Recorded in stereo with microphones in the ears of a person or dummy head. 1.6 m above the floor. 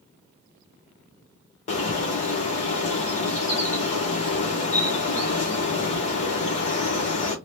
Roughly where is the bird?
Left.